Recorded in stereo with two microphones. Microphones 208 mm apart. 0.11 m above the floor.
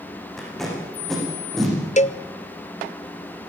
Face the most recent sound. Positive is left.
turn(degrees=35)  # may be behind; listen again after turning